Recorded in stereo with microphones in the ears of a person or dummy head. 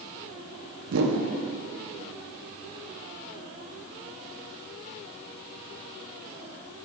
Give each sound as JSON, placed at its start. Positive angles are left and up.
{"t": 0.9, "sound": "a whoosh", "side_deg": -75, "distance_m": 0.9}